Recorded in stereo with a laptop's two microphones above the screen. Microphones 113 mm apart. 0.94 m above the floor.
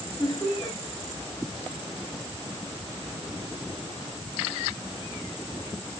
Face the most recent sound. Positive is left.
turn(degrees=15)  # may be behind; listen again after turning